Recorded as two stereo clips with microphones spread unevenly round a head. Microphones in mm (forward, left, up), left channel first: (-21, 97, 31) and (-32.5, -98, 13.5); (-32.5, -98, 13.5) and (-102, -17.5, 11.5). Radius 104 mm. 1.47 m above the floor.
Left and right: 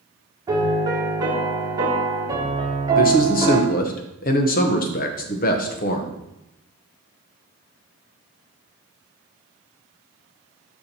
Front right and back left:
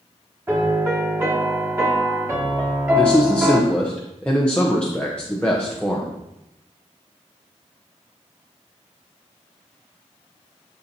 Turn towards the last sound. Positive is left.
turn(degrees=35)